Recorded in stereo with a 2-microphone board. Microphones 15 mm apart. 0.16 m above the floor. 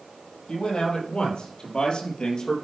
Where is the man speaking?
70° left (ahead or behind), 4.5 m; by 2.5 s 50° left (ahead or behind), 3 m.